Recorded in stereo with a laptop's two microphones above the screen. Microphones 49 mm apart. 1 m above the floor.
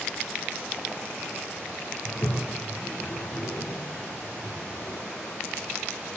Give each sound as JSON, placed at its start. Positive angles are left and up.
{"t": 2.0, "sound": "a toilet flushing", "side_deg": 60, "distance_m": 1.8}